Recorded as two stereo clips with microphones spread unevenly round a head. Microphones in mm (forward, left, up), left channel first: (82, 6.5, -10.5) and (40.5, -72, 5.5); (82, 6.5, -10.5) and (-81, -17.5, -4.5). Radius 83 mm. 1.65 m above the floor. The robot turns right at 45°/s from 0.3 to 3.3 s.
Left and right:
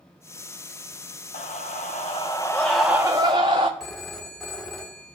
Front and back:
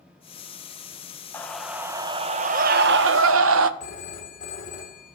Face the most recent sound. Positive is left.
turn(degrees=-35)